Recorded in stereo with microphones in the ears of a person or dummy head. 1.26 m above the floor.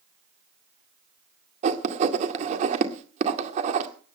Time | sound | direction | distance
1.6 | writing | 40° right (ahead or behind) | 1.9 m